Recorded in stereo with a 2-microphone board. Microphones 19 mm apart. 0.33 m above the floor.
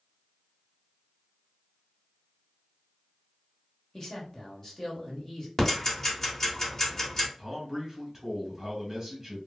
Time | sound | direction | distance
3.9 | a man speaking | 30° left (ahead or behind) | 1.1 m
5.6 | ticking | 25° left (ahead or behind) | 1.2 m
7.4 | a man speaking | 15° right (ahead or behind) | 1.2 m